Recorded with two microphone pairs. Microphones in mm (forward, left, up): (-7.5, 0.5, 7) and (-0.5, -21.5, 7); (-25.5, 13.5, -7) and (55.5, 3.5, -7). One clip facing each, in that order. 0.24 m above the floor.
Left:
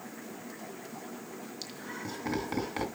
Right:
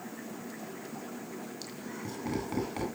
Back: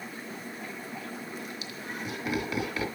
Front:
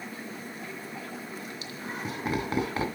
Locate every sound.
1.6 s laughter: 35° left, 2 m